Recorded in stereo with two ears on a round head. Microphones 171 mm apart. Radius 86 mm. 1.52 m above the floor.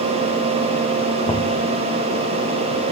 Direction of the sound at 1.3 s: 20° left (ahead or behind).